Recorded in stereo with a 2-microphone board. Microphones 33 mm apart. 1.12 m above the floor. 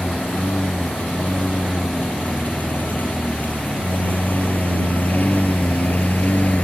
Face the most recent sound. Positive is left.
turn(degrees=50)  # may be behind; listen again after turning